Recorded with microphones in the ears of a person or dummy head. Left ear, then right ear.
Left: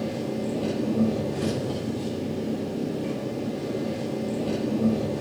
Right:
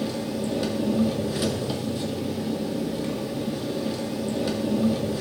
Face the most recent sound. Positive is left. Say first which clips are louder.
# right 1 dB
turn(degrees=-40)  # may be behind; listen again after turning